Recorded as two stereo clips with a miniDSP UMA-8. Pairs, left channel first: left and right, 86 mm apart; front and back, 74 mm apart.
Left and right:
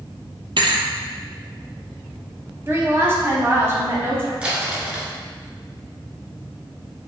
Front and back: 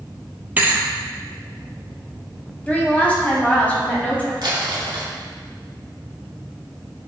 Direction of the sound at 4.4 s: 165° right.